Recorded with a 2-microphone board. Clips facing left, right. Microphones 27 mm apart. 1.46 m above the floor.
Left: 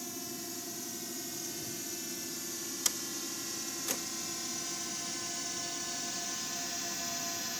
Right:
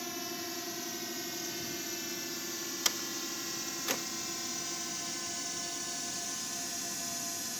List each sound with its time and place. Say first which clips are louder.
0.0 s a drone: right 3 dB; 30° right (ahead or behind); by 7.6 s 15° left (ahead or behind)
2.9 s a door slam: right 3 dB; 25° right (ahead or behind)